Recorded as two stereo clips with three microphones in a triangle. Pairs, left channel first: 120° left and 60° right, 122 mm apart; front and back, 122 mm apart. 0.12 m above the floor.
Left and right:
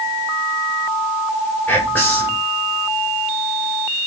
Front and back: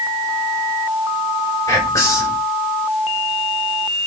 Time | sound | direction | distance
1.7 | whispering | 50° left | 2.0 m